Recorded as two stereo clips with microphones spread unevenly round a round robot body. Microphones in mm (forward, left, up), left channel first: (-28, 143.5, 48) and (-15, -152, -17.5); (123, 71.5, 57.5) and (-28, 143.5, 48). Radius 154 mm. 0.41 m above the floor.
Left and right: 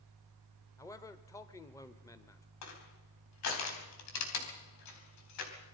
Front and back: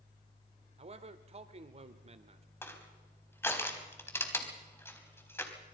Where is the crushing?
50° left, 4 m.